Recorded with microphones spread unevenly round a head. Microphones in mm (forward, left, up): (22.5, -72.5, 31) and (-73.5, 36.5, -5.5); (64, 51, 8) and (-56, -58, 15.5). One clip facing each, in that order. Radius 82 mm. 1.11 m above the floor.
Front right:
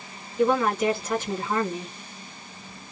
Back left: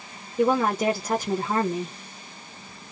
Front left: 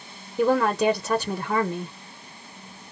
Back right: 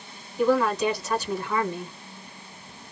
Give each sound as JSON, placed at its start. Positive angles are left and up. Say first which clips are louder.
{"t": 0.4, "sound": "a woman speaking", "louder": "even, front left 1 dB", "azimuth_deg": 80, "distance_m": 1.0}